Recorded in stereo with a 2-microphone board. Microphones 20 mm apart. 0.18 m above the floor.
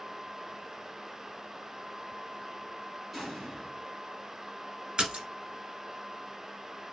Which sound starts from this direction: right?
A splash, at 5.0 s.